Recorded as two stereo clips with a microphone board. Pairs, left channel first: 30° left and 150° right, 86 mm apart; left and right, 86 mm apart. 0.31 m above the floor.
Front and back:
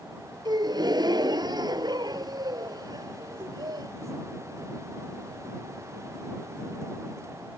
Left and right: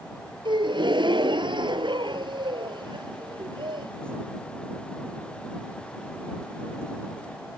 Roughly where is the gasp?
Behind right.